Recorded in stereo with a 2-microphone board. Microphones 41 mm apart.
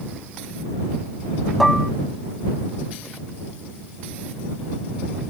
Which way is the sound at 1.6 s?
5° left (ahead or behind).